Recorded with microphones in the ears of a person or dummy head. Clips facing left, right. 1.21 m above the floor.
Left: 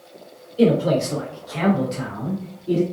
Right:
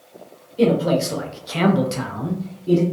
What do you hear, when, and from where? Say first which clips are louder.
0.6 s a man speaking: even; 5° left (ahead or behind), 0.8 m; by 2.8 s 80° right, 0.9 m